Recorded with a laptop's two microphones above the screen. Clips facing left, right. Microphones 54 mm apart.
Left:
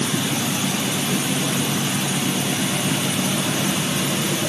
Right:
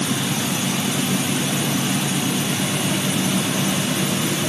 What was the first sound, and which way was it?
Only background noise.